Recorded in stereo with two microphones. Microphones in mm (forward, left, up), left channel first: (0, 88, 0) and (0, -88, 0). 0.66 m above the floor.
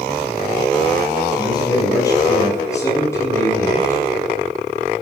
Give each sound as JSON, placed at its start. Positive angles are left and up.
{"t": 1.4, "sound": "a man speaking", "side_deg": 20, "distance_m": 5.0}